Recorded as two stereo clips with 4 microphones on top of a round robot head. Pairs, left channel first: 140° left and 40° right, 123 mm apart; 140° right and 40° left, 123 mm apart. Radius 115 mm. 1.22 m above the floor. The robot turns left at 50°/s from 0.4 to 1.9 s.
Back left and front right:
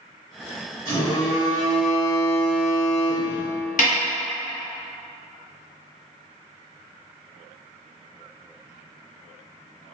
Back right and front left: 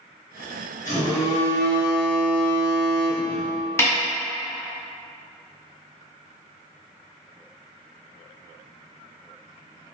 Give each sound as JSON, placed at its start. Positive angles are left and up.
{"t": 0.8, "sound": "a phone buzzing", "azimuth_deg": -155, "distance_m": 1.5}
{"t": 3.8, "sound": "a snare drum", "azimuth_deg": 150, "distance_m": 0.9}